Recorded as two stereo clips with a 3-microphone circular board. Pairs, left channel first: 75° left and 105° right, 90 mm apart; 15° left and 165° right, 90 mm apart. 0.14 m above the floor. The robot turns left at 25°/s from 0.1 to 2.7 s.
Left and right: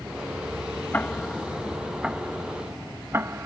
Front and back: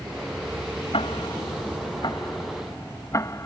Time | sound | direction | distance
0.9 | ticking | 5° left | ?